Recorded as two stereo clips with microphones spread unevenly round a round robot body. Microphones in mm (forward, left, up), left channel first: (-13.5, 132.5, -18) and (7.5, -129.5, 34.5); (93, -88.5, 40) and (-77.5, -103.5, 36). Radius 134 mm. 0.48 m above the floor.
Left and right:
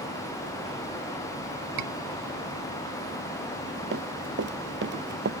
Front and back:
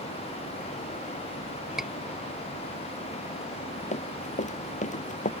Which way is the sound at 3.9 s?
40° right.